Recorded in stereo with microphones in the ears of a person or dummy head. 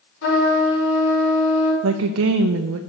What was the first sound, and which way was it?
A trumpet, 75° left (ahead or behind).